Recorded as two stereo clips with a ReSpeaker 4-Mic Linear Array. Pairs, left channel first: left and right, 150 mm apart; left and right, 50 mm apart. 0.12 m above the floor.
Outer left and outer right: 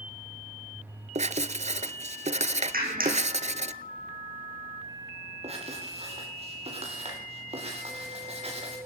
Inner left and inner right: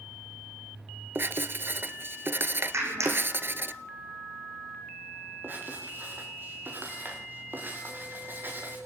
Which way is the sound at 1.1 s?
50° right (ahead or behind).